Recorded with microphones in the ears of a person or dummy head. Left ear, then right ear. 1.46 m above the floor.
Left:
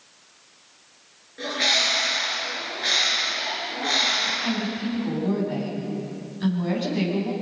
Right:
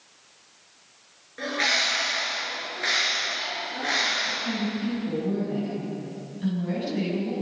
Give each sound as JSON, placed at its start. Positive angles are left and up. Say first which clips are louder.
{"t": 1.4, "sound": "a bird", "louder": "left 2 dB", "side_deg": -30, "distance_m": 8.0}
{"t": 4.2, "sound": "a woman speaking", "louder": "left 3 dB", "side_deg": 40, "distance_m": 10.0}